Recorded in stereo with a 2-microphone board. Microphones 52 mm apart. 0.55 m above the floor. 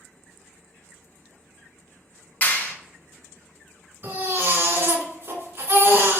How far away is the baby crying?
About 1.8 m.